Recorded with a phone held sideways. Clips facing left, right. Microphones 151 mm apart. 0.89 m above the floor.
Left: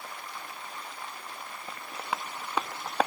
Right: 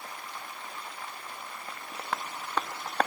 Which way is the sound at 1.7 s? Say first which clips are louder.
Left 1 dB; 5° left (ahead or behind).